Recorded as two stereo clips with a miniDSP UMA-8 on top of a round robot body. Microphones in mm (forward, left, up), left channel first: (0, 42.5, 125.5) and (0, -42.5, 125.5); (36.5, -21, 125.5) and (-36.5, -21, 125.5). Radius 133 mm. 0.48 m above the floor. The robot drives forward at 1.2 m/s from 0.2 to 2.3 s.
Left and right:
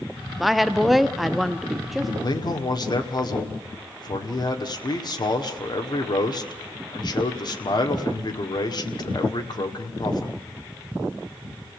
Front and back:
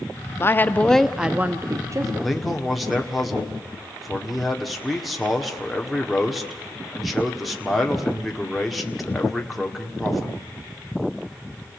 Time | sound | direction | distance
0.4 | a woman speaking | straight ahead | 1.4 m
2.2 | a man speaking | 85° left | 1.9 m